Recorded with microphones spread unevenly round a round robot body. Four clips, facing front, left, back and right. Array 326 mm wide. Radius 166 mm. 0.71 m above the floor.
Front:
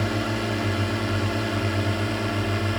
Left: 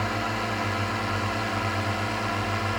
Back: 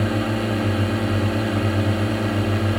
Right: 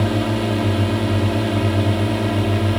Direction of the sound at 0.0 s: 110° right.